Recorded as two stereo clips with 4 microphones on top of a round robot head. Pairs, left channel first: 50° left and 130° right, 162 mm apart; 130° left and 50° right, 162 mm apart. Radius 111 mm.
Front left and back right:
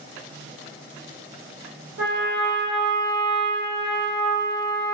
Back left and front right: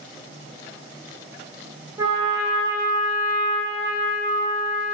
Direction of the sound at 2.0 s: 125° right.